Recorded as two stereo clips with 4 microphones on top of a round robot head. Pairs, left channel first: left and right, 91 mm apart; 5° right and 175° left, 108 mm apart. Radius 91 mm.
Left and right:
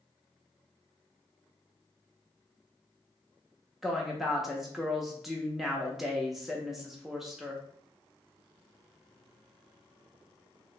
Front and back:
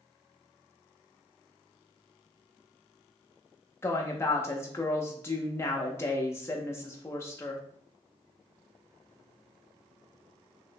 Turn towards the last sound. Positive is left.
turn(degrees=-5)